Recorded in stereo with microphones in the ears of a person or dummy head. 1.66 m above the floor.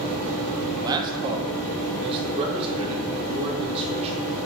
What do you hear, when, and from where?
0.8 s a man speaking: 25° right (ahead or behind), 1.9 m; by 4.2 s 40° right (ahead or behind), 5 m